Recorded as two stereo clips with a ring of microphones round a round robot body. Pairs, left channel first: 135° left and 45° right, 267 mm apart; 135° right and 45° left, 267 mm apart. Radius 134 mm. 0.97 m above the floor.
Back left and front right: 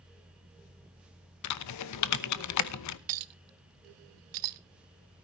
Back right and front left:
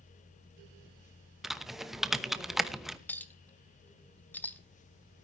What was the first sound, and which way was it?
Typing on a keyboard, 135° left.